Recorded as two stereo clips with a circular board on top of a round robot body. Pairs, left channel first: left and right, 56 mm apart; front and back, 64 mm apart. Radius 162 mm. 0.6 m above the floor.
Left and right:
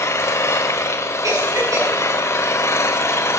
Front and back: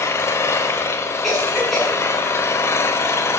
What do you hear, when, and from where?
0.0 s an engine running: 50° left, 1.3 m
1.2 s a cough: 85° right, 8.5 m